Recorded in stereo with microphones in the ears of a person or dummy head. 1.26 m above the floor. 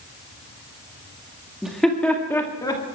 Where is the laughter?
5° right (ahead or behind), 1.9 m; by 2.8 s 15° left (ahead or behind), 2.5 m.